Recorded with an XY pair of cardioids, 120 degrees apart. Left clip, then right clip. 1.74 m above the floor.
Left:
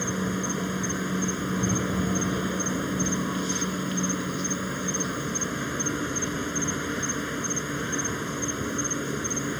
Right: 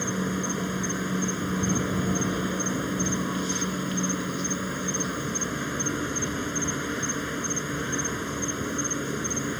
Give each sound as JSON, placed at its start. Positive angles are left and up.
{"t": 0.0, "sound": "an insect", "azimuth_deg": 0}